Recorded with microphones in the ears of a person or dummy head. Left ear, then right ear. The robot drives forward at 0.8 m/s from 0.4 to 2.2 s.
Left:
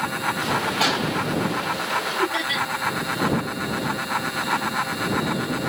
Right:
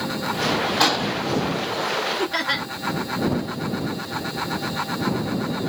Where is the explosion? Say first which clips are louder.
Right 3 dB; 30° right (ahead or behind), 2.5 m; by 1.1 s 35° right (ahead or behind), 2 m.